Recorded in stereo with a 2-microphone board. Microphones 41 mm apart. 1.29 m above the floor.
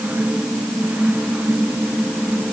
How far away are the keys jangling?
I don't hear keys jangling.